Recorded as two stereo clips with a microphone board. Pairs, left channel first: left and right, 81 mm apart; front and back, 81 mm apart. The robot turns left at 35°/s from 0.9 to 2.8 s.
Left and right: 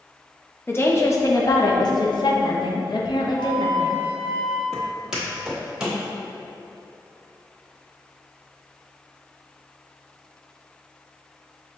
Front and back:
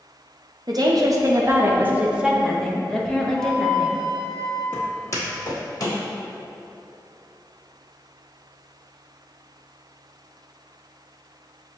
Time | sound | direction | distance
0.7 | a woman speaking | 150° left | 0.6 m
3.4 | a flute | 90° left | 1.5 m
4.7 | footsteps | 10° right | 1.3 m